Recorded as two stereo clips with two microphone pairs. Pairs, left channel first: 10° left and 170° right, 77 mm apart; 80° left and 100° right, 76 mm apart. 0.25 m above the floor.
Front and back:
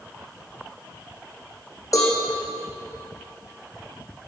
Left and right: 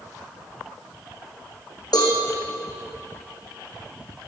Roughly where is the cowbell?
Ahead left.